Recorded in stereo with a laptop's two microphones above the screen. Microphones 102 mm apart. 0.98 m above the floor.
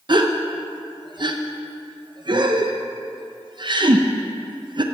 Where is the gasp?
45° right (ahead or behind), 0.7 m.